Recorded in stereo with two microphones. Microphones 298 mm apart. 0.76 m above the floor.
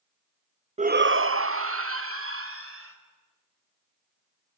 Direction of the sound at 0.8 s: 20° right (ahead or behind).